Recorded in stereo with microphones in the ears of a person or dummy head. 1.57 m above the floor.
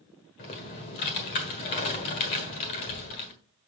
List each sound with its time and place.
0.4 s typing on a keyboard: 30° left (ahead or behind), 1.5 m